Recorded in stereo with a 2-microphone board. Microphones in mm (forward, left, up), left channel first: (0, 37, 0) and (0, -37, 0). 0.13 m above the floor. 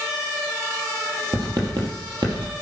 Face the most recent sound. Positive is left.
turn(degrees=-65)  # may be behind; listen again after turning